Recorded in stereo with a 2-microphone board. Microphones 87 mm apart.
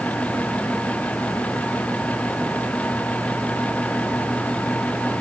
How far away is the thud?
No thud in this recording.